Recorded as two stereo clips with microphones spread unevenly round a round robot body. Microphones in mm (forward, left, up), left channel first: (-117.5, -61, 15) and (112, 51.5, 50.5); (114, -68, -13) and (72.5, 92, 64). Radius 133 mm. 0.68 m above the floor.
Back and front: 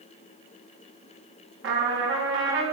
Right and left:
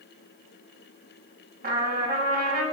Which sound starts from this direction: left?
A trumpet, at 1.6 s.